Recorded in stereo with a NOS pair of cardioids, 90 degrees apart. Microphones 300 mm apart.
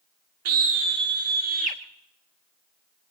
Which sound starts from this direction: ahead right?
A scream, at 0.5 s.